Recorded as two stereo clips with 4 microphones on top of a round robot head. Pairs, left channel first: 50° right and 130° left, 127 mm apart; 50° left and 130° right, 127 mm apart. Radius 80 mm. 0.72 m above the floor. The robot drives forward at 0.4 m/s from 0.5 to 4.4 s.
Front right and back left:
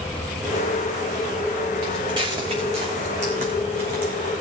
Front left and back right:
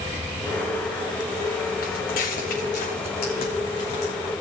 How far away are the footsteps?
About 3 m.